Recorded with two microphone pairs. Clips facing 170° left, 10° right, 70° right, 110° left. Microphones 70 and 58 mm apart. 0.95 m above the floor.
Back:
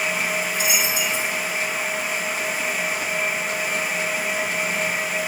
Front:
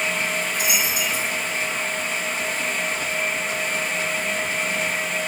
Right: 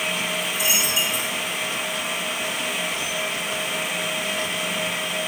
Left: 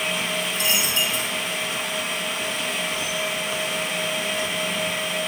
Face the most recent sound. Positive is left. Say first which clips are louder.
# back 1 dB, even
turn(degrees=15)